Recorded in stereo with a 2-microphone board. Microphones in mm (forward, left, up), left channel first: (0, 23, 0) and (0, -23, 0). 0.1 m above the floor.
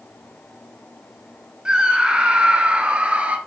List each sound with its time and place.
1.6 s a scream: 20° right (ahead or behind), 1.5 m; by 3.4 s 30° right (ahead or behind), 1.8 m